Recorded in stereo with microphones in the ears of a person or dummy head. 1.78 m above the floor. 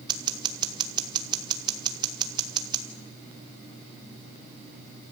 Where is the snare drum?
I don't hear a snare drum.